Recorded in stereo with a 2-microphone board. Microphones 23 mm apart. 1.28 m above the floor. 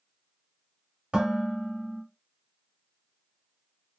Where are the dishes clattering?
55° right (ahead or behind), 1.5 m.